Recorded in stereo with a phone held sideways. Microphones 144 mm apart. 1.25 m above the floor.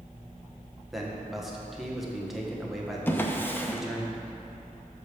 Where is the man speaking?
Centre (ahead or behind), 1.2 m.